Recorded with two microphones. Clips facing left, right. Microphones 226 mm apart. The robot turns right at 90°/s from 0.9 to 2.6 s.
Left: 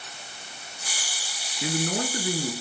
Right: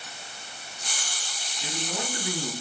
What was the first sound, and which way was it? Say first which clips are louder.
A man speaking: left 7 dB; 90° left.